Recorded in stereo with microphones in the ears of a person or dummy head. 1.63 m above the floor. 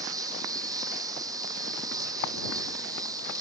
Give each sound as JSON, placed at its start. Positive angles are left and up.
{"t": 0.0, "sound": "a lawn mower", "side_deg": -20}